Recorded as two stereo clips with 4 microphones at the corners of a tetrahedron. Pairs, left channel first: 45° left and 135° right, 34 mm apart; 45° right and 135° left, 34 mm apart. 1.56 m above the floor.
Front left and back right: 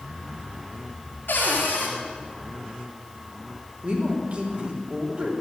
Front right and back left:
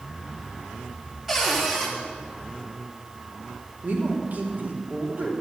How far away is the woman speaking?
About 3 m.